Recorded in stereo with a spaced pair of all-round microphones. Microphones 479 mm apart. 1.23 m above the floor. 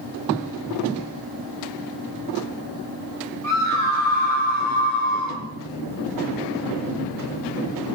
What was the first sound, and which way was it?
A scream, 45° left (ahead or behind).